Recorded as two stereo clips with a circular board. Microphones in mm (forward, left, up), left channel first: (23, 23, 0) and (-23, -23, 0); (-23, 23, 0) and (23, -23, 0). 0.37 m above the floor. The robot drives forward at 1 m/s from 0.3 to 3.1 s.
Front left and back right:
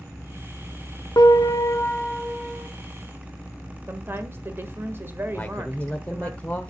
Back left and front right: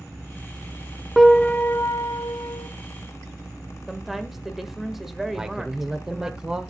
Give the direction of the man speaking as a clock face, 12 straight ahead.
11 o'clock.